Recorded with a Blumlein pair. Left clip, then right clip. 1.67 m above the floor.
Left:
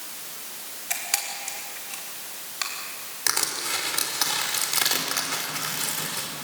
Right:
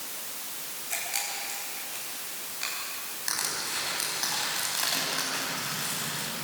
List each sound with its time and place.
0.9 s a camera shutter: 55° left, 5.5 m
3.3 s crushing: 40° left, 5 m